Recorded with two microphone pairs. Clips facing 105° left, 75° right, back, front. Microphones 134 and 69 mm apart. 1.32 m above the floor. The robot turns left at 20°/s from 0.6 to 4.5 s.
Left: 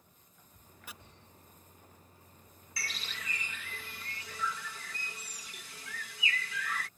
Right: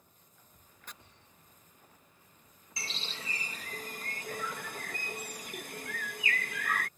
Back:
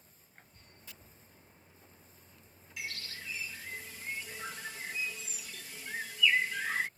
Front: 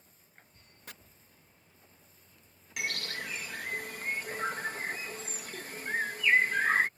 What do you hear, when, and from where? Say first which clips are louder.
0.9 s chopping: even, front 7 dB; 25° left; by 0.9 s 20° left
2.8 s a bird: right 1 dB, front 7 dB; 10° right; by 6.9 s 45° right